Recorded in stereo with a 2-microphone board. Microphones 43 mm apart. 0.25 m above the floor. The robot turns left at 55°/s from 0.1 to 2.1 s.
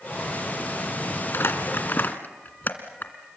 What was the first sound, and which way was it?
Crumpling, 65° left (ahead or behind).